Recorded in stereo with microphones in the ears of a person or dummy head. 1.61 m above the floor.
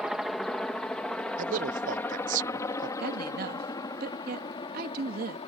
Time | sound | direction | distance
0.0 | a helicopter | 5° right (ahead or behind) | ?
1.4 | a man speaking | 40° right (ahead or behind) | ?
3.0 | a woman speaking | 50° right (ahead or behind) | ?